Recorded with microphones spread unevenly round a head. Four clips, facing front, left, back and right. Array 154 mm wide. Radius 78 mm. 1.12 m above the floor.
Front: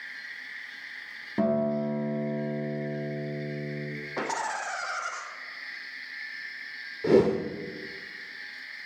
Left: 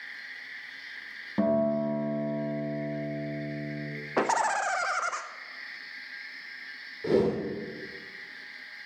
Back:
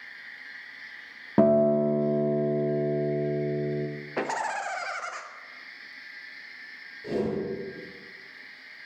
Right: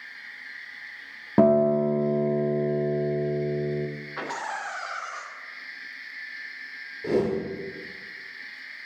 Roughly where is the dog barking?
I don't hear a dog barking.